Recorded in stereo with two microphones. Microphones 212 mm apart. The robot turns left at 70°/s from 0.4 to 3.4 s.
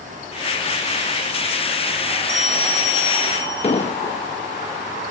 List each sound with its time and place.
2.3 s a bell: 55° right, 4.5 m; by 3.9 s 130° right, 4.5 m
3.6 s an explosion: 30° left (ahead or behind), 0.7 m